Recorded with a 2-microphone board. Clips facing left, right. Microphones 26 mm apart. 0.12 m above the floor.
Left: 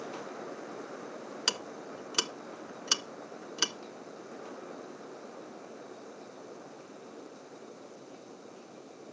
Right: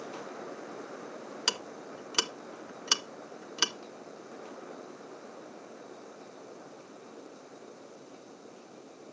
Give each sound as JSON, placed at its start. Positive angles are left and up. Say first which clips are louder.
{"t": 1.5, "sound": "ticking", "louder": "right 1 dB", "side_deg": -10, "distance_m": 0.5}